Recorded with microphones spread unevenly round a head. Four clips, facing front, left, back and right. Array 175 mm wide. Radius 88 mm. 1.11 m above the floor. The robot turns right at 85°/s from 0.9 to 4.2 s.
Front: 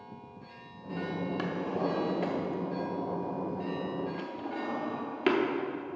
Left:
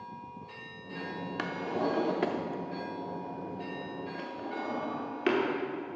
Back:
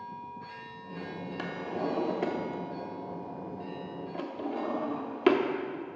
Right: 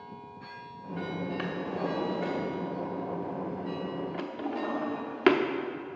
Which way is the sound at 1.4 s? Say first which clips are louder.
Left 5 dB, even; 35° left.